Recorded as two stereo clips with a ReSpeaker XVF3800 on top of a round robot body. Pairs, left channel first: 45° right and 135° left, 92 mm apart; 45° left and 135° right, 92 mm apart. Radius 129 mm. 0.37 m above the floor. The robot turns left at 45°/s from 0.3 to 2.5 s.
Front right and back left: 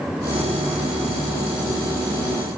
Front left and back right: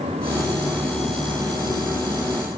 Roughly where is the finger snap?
No finger snap in this recording.